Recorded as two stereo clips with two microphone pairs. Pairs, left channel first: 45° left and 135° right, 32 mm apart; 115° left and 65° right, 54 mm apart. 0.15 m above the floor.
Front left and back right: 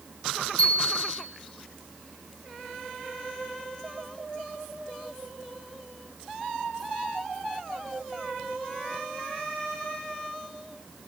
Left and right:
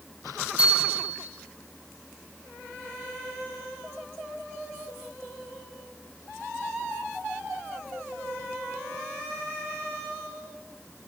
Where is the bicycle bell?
5° left, 4 m.